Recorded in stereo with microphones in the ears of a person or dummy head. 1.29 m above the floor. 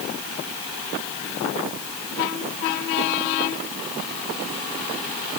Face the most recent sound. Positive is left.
No sound to turn to.